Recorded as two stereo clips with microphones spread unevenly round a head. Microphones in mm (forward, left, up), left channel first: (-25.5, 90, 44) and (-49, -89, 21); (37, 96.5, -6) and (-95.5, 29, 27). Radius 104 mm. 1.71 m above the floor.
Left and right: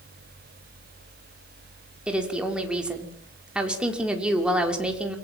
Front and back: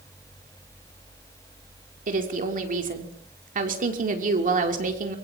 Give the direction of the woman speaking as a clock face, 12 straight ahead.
6 o'clock.